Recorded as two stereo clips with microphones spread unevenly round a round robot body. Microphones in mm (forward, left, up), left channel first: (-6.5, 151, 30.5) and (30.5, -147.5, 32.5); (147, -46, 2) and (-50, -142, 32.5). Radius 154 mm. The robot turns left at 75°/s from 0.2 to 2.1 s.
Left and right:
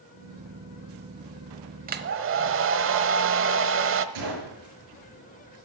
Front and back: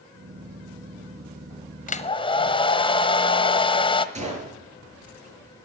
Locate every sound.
1.9 s a hair dryer: 20° right, 1.2 m; by 4.0 s 40° right, 1.2 m
4.2 s a gunshot: 95° right, 7 m